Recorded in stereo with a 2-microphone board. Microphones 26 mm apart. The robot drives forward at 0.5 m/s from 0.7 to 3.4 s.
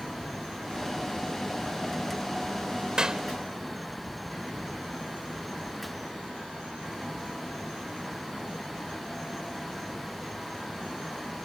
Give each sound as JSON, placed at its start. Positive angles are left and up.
{"t": 3.0, "sound": "a clap", "side_deg": -30}